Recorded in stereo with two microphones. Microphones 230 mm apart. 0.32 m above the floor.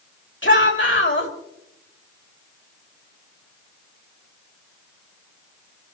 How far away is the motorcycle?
No motorcycle in this recording.